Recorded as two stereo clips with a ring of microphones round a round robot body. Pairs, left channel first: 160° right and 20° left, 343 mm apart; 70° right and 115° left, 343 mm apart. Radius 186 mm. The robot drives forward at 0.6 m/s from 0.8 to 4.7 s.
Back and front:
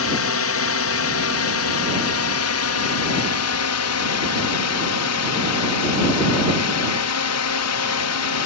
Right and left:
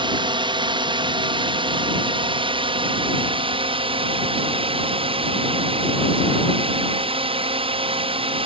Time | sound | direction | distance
0.0 | a drone | 175° right | ?